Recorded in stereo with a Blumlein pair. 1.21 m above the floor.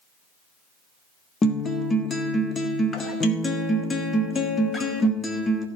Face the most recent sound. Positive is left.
turn(degrees=15)